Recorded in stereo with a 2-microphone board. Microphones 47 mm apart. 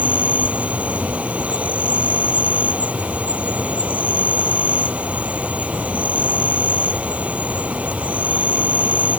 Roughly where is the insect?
Right.